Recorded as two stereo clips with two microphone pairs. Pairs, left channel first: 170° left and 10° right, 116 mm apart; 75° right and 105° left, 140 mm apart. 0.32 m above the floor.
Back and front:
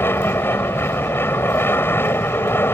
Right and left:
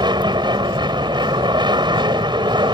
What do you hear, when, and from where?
0.0 s an aircraft: 115° left